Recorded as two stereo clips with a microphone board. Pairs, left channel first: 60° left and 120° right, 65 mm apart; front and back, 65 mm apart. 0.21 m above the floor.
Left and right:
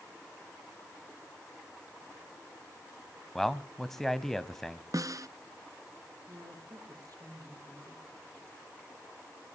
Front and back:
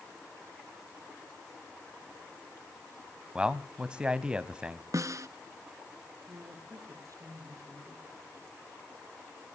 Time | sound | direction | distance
3.4 | a man speaking | 140° left | 1.0 m
4.9 | a snare drum | 150° right | 0.7 m
6.3 | a woman speaking | 150° right | 6 m